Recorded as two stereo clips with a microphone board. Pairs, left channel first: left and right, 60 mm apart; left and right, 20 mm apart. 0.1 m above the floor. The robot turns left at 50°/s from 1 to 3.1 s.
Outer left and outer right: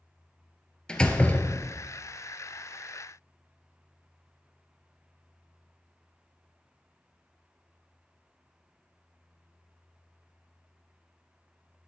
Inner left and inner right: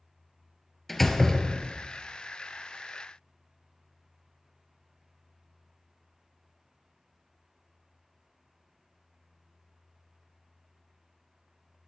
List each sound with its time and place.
0.9 s a door slam: 160° left, 1.5 m; by 1.9 s 115° left, 1.5 m